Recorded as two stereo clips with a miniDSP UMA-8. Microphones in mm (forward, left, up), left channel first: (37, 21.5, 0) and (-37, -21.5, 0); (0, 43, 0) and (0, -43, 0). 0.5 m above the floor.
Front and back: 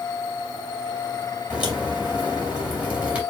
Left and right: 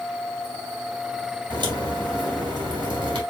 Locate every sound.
1.5 s a crack: 75° right, 3 m